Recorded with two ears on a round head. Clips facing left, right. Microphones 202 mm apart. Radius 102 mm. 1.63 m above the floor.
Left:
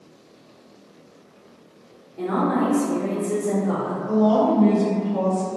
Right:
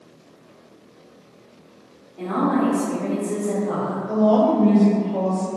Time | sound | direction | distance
2.2 | a woman speaking | 15° left (ahead or behind) | 0.6 m
4.1 | a woman speaking | 60° left (ahead or behind) | 1.0 m